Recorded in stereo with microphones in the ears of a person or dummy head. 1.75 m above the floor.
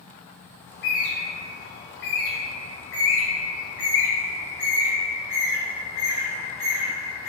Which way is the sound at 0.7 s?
60° left (ahead or behind).